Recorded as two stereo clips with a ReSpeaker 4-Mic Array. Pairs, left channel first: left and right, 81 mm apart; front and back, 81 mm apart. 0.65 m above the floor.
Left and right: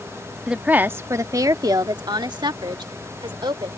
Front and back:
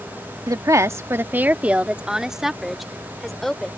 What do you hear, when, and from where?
0.5 s a woman speaking: 165° right; by 3.7 s 85° right